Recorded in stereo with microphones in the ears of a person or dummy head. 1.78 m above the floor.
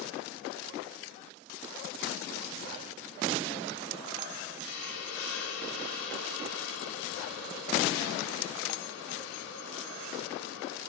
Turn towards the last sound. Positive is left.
turn(degrees=85)